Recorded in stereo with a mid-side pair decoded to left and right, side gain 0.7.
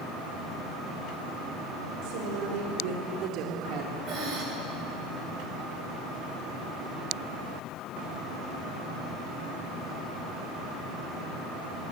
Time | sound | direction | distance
2.0 | a woman speaking | 70° right | 5.5 m
4.1 | breathing | 40° right | 8 m